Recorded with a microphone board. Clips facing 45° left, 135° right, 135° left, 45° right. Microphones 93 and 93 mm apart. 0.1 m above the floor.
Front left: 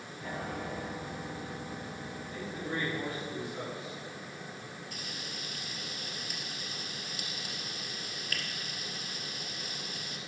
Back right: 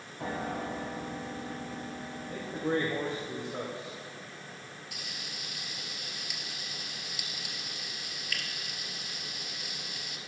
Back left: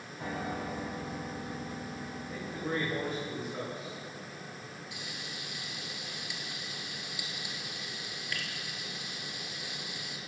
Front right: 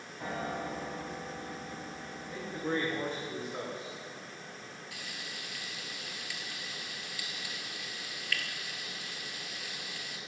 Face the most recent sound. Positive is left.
turn(degrees=70)